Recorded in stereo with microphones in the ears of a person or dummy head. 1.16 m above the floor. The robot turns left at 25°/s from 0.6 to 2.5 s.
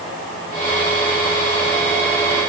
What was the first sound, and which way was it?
Only background noise.